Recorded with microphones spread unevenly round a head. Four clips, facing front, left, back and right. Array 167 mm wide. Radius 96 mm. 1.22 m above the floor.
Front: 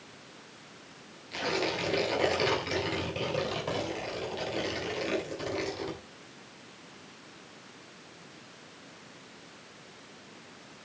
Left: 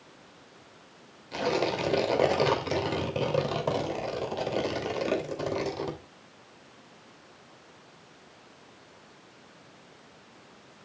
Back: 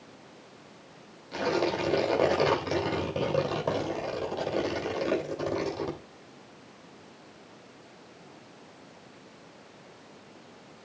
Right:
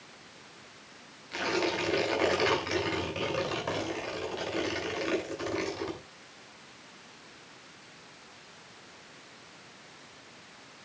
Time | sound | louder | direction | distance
1.3 | tearing paper | left 3 dB, back 4 dB | 130° left | 2.5 m